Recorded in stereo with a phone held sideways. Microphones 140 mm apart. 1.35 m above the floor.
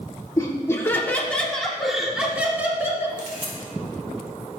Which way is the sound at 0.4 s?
25° left (ahead or behind).